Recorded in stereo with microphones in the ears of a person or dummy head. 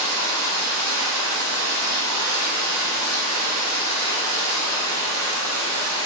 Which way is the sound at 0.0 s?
85° right.